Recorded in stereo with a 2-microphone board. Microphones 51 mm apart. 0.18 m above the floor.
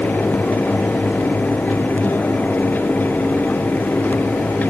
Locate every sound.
Only background noise.